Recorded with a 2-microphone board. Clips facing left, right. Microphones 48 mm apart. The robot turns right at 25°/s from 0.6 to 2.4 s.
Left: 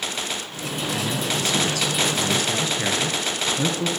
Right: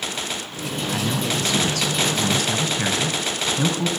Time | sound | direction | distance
0.9 | a man speaking | 140° right | 3 m